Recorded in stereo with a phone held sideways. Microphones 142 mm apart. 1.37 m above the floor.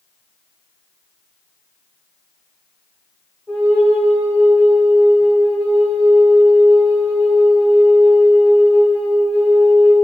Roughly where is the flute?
Centre.